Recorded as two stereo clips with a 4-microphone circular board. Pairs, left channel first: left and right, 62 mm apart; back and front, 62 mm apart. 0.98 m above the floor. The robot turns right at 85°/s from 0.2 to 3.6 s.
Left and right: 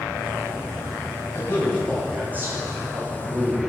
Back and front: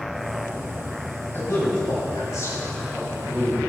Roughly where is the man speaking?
Behind left.